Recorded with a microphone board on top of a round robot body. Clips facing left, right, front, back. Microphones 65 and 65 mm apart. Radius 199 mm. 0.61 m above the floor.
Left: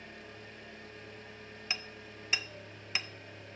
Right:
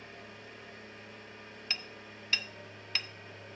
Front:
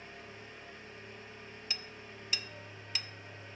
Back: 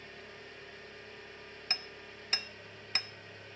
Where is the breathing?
I don't hear breathing.